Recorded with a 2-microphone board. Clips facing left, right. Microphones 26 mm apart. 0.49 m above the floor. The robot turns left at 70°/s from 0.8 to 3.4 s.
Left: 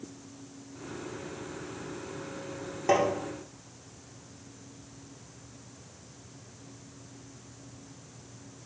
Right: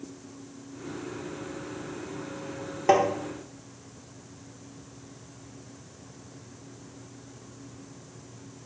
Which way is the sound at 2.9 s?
20° right (ahead or behind).